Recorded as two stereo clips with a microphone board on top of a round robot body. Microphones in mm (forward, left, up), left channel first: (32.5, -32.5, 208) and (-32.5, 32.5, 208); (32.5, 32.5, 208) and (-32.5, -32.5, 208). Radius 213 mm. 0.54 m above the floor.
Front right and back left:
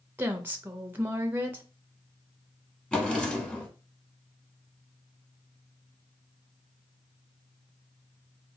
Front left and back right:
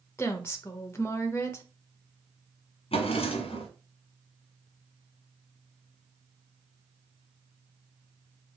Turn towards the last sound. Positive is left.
turn(degrees=35)